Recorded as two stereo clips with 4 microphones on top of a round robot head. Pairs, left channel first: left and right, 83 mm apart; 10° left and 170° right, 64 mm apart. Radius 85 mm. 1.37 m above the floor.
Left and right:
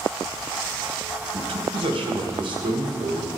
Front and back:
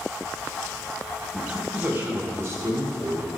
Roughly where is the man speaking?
Right.